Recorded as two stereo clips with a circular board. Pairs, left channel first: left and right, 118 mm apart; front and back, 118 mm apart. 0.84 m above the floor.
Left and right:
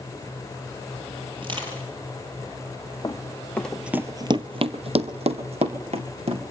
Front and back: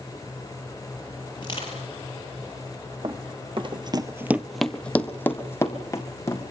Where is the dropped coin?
No dropped coin in this recording.